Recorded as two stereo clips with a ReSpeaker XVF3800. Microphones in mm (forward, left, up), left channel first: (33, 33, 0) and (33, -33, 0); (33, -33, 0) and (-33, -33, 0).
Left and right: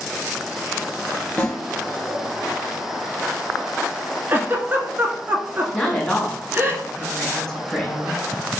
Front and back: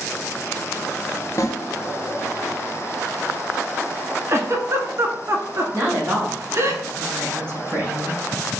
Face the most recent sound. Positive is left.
turn(degrees=165)